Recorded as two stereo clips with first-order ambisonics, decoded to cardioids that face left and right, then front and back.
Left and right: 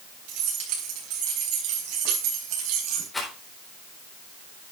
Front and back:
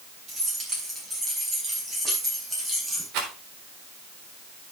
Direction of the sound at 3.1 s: 170° left.